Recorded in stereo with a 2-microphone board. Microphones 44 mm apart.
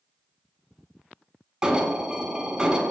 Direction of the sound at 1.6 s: 20° right (ahead or behind).